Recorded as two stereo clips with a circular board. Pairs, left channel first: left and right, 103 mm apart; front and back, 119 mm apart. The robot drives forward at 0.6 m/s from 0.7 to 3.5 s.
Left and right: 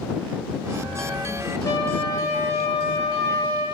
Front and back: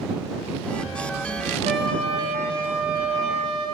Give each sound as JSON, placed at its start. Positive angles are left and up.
{"t": 1.6, "sound": "a trumpet", "azimuth_deg": 150, "distance_m": 9.5}